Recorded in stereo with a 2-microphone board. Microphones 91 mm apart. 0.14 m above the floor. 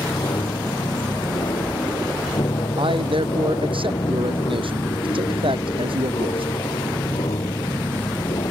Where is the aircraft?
60° left (ahead or behind); by 8.5 s 65° left (ahead or behind).